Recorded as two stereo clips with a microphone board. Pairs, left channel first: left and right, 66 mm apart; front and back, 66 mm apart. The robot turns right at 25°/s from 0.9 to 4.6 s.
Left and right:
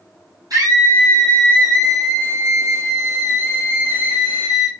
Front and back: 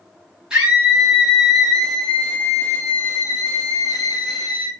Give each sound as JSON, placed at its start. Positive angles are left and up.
{"t": 0.5, "sound": "a scream", "azimuth_deg": -100, "distance_m": 5.0}